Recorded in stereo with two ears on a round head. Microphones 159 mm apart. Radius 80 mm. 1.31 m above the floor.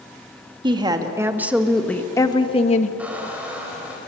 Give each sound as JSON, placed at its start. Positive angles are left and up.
{"t": 0.6, "sound": "a woman speaking", "side_deg": -30, "distance_m": 2.5}
{"t": 3.0, "sound": "a squeak", "side_deg": -10, "distance_m": 4.0}